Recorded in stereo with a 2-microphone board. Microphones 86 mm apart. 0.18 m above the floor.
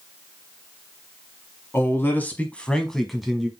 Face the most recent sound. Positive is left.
turn(degrees=-5)  # may be behind; listen again after turning